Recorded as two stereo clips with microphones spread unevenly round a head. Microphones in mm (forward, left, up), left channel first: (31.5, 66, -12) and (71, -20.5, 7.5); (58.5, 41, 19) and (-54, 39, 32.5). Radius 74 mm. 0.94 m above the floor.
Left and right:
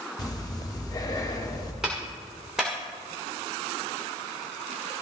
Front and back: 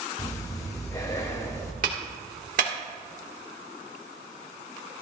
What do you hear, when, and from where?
0.2 s breathing: 65° left, 2 m
1.8 s a clap: 150° right, 1.7 m